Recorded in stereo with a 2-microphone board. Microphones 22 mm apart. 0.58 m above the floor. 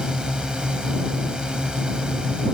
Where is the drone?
40° right (ahead or behind).